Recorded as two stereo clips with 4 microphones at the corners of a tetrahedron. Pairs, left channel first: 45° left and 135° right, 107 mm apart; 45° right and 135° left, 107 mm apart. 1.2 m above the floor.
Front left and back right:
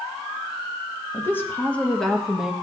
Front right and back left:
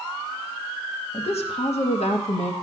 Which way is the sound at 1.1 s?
20° right.